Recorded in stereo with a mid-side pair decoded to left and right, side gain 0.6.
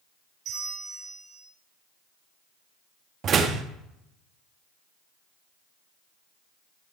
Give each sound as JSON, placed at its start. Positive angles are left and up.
{"t": 0.5, "sound": "a bell", "azimuth_deg": -60, "distance_m": 5.5}
{"t": 3.2, "sound": "a door slam", "azimuth_deg": -45, "distance_m": 1.6}